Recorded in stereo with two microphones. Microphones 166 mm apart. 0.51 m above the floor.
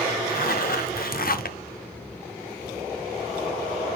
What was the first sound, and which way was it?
A zipper, 60° left (ahead or behind).